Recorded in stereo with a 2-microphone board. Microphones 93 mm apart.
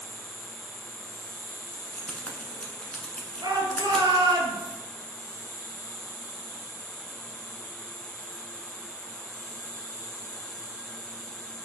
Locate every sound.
0.0 s an insect: 35° left (ahead or behind), 1.1 m
1.7 s keys jangling: 10° left (ahead or behind), 1.0 m
3.4 s a shout: 50° right (ahead or behind), 2.0 m